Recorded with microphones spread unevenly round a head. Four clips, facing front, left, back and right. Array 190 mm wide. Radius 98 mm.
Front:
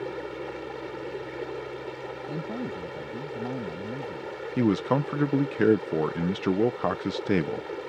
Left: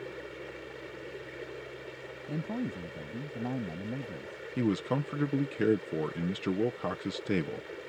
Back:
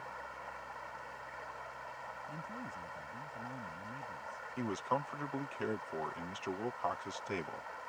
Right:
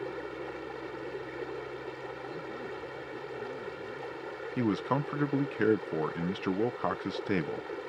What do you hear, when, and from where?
0.0 s running water: 25° right
2.3 s a man speaking: 45° left
4.6 s a man speaking: 5° right